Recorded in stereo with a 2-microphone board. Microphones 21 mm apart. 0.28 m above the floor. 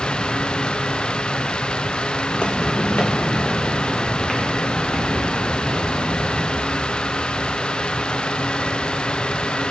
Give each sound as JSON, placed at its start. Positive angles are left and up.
{"t": 2.3, "sound": "footsteps", "side_deg": 55, "distance_m": 1.2}